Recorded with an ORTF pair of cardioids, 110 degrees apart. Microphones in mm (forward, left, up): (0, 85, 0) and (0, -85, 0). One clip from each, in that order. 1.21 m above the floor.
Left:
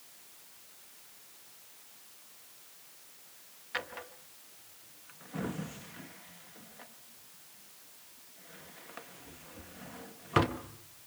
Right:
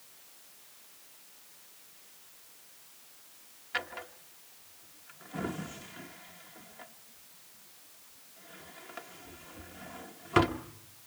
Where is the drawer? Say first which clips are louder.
Right 2 dB; 10° right, 1.0 m.